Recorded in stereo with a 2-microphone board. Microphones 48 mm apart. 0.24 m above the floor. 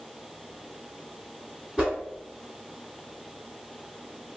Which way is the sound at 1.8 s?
20° right (ahead or behind).